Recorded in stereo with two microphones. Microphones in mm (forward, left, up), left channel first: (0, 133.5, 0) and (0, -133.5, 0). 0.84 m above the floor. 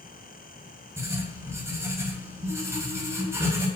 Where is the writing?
10° right (ahead or behind), 10 m.